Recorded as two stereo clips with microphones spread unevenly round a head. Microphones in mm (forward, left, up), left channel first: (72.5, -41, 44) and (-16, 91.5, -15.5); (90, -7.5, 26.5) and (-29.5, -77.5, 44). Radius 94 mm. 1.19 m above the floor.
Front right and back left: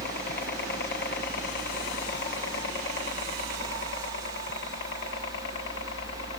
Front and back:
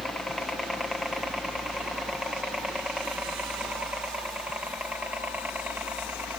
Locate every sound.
0.0 s a helicopter: 50° right; by 6.4 s 75° right